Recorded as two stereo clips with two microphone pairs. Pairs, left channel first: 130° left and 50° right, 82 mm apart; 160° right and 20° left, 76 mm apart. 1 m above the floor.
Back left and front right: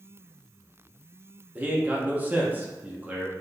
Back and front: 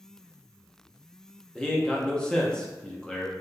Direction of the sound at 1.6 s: 95° right.